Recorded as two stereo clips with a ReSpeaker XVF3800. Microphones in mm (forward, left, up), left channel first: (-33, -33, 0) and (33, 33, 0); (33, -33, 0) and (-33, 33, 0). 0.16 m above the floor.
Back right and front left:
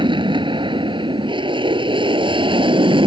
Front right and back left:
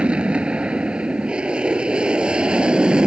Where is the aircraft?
55° left.